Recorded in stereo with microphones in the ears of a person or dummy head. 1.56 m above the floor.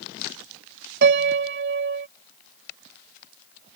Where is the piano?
60° right (ahead or behind).